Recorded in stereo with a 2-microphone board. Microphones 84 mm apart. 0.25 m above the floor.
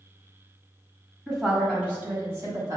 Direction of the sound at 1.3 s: 5° right (ahead or behind).